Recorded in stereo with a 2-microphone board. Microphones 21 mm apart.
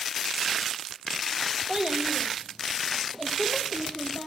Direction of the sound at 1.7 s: 45° right (ahead or behind).